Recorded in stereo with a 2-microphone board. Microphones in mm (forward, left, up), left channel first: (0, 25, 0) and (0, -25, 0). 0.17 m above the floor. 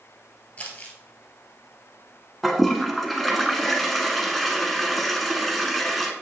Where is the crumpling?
30° left (ahead or behind), 1.4 m.